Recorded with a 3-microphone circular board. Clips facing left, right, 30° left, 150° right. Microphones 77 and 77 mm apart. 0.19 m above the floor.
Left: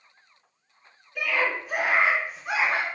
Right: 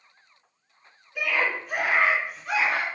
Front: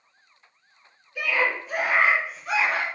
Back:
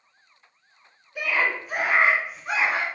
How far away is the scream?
About 1.2 m.